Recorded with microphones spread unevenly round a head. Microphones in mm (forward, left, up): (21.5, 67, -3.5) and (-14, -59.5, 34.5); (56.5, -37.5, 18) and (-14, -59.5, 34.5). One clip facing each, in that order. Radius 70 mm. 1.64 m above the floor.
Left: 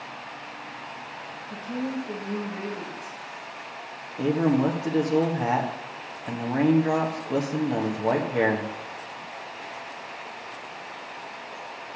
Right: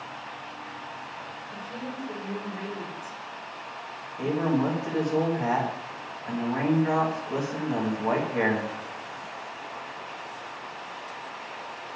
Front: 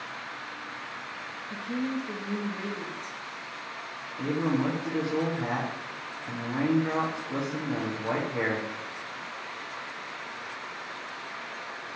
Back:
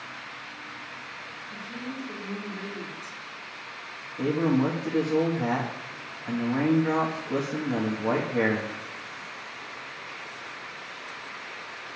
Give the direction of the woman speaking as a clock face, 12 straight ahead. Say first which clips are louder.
Left 8 dB, front 7 dB; 11 o'clock.